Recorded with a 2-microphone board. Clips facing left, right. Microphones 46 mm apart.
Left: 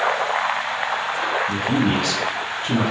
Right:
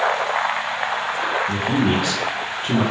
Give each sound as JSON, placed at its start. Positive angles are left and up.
{"t": 1.5, "sound": "a man speaking", "side_deg": -15, "distance_m": 1.8}